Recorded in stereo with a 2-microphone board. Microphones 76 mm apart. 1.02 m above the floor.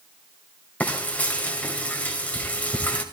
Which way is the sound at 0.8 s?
20° left (ahead or behind).